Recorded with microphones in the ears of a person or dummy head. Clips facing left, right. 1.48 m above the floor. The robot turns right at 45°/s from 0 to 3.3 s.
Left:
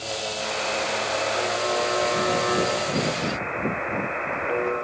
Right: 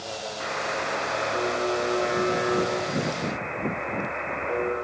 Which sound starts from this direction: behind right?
A buzzer, at 0.4 s.